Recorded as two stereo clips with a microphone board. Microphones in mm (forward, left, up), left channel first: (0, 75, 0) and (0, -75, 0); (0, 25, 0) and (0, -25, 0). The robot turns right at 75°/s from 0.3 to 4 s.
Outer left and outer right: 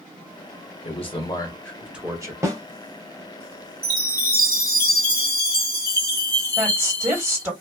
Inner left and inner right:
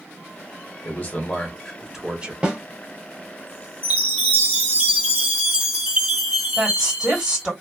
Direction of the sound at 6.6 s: 15° right (ahead or behind).